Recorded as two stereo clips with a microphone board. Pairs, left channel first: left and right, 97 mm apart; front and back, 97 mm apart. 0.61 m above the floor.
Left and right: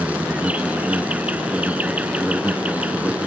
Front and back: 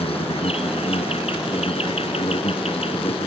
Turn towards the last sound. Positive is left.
turn(degrees=-15)